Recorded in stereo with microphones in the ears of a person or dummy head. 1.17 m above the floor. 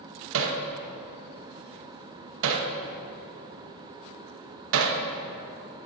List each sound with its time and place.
0.3 s hammering: 85° right, 0.9 m